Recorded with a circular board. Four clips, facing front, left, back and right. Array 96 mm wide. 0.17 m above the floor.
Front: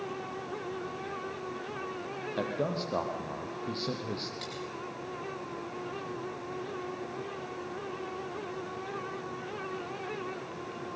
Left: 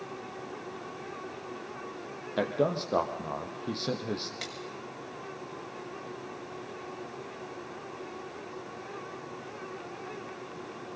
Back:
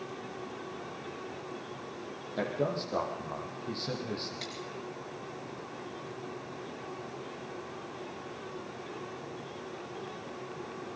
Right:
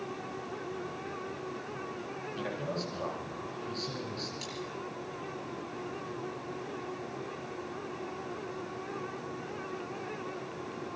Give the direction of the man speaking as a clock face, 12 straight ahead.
9 o'clock.